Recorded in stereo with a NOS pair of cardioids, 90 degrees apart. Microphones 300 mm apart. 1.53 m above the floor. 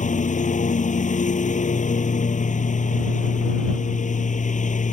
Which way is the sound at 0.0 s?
25° left.